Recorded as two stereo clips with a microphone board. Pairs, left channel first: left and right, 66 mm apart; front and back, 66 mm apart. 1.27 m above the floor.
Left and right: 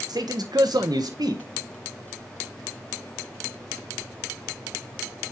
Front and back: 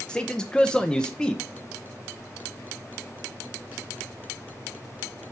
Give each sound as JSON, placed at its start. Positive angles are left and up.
{"t": 0.1, "sound": "a man speaking", "azimuth_deg": -80, "distance_m": 0.9}